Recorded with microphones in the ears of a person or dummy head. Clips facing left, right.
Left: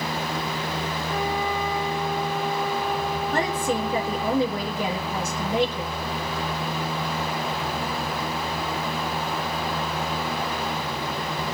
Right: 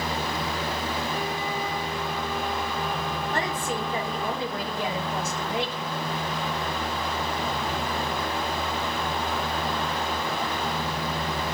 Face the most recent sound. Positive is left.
turn(degrees=75)  # may be behind; listen again after turning